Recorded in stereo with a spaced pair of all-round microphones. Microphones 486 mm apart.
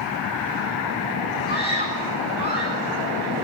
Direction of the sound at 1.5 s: 20° left (ahead or behind).